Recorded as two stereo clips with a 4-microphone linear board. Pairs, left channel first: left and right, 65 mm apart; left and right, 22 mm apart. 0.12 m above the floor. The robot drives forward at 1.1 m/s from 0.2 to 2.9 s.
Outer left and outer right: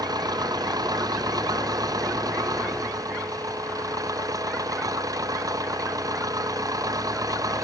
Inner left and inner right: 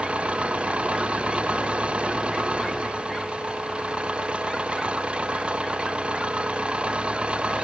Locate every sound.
0.0 s an engine running: 80° right; by 7.7 s 65° right (ahead or behind)